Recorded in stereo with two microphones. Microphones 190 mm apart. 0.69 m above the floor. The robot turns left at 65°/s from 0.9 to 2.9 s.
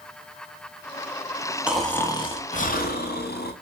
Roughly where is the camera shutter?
I don't hear a camera shutter.